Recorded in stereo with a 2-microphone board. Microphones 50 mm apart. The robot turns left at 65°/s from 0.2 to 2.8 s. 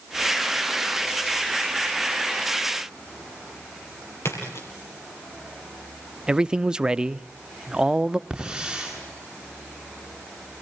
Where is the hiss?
15° right (ahead or behind), 8.5 m.